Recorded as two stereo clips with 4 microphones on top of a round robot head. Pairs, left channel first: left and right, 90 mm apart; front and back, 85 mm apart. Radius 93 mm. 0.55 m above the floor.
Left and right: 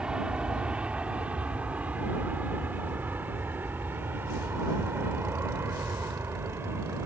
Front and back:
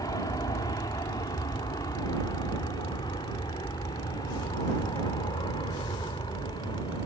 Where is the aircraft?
15° right; by 7.1 s 30° right.